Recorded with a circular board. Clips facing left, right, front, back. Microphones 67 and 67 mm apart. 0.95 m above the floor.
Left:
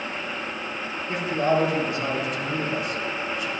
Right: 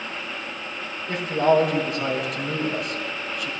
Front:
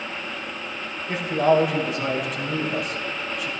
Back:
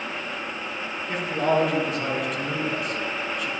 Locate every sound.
1.1 s a man speaking: 85° right, 4.5 m